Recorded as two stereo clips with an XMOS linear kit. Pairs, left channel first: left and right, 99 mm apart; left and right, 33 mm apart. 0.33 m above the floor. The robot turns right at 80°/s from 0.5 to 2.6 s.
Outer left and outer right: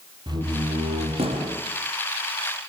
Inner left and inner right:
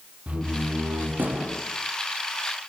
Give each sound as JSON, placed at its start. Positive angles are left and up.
{"t": 0.3, "sound": "a door slam", "azimuth_deg": -135, "distance_m": 8.0}